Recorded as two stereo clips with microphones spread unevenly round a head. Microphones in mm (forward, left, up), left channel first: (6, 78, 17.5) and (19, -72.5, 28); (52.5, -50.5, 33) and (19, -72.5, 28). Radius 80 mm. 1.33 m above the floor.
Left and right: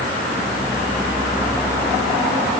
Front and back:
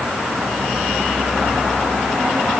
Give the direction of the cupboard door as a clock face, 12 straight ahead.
No cupboard door in this recording.